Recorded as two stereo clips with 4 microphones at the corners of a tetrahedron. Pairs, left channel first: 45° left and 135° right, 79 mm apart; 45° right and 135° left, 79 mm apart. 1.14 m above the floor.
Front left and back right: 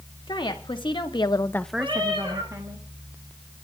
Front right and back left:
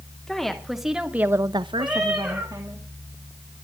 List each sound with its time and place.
0.3 s a woman speaking: 40° left, 2 m; by 2.8 s 170° right, 1.9 m
1.8 s a cat meowing: 140° right, 9 m